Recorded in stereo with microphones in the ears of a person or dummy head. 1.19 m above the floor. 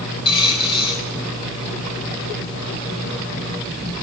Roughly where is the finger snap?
I don't hear a finger snap.